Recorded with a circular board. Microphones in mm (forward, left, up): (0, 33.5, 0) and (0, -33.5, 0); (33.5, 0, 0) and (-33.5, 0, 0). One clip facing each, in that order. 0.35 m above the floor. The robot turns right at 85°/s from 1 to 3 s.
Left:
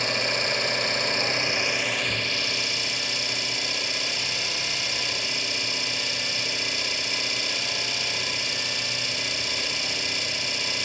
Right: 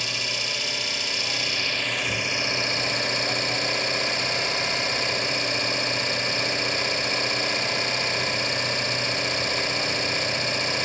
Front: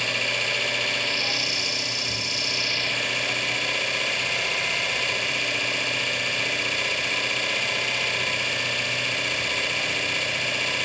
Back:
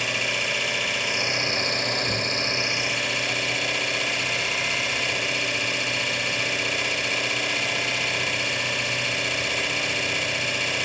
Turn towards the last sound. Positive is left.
turn(degrees=-95)